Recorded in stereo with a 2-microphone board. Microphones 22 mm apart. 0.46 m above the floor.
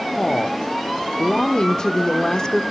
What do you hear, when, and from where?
0.2 s a woman speaking: 35° left (ahead or behind), 0.8 m